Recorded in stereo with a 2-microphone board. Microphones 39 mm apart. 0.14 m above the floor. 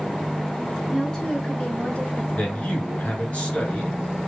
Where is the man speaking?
35° left (ahead or behind), 2.0 m.